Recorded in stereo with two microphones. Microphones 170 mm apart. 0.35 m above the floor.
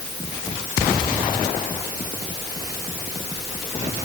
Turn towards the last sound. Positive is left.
No sound to turn to.